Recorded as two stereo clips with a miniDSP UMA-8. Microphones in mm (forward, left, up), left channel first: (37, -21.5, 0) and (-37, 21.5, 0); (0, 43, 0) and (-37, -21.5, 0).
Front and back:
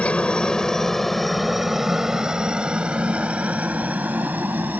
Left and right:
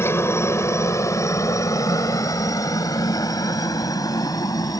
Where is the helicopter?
40° left; by 4.8 s 85° left.